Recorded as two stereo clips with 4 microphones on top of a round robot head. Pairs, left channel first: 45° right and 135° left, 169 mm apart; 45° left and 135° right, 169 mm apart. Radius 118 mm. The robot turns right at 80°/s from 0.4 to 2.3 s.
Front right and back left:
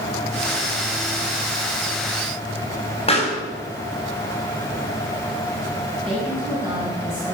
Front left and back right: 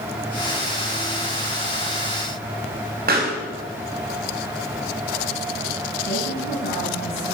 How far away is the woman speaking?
About 7 m.